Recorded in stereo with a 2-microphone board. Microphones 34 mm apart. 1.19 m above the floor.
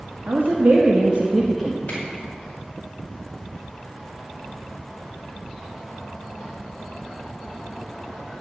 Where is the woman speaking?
65° right (ahead or behind), 1.7 m; by 1.8 s 5° right (ahead or behind), 1.2 m.